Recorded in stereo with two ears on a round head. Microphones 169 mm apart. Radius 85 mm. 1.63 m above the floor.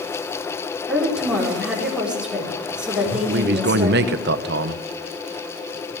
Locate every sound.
0.9 s a woman speaking: 5° right (ahead or behind), 4 m
3.0 s a man speaking: 55° right (ahead or behind), 0.9 m